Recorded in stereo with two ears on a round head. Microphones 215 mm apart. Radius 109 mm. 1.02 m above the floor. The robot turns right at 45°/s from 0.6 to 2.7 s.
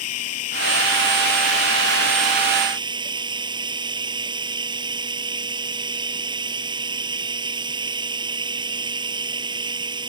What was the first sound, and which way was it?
Running water, 105° left.